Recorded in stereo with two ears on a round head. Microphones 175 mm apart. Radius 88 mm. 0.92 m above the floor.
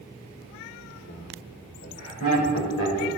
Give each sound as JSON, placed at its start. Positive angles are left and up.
{"t": 1.1, "sound": "laughter", "side_deg": 70, "distance_m": 2.5}